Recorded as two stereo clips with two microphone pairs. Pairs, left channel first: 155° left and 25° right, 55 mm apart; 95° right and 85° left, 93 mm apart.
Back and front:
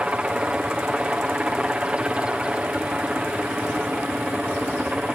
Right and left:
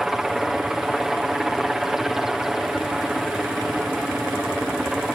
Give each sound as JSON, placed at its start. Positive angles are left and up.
{"t": 0.0, "sound": "a helicopter", "azimuth_deg": 10}